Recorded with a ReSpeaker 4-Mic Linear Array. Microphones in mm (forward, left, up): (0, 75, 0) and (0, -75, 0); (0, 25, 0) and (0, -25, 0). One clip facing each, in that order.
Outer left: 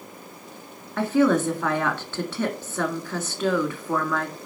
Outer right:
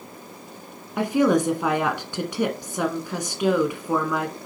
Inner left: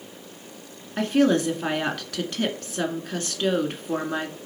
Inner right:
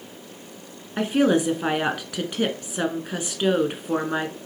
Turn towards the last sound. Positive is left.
turn(degrees=-15)  # may be behind; listen again after turning